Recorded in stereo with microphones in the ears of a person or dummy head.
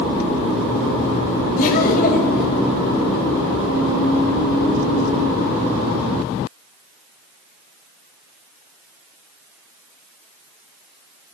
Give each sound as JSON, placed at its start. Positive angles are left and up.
{"t": 1.6, "sound": "laughter", "side_deg": 45, "distance_m": 1.3}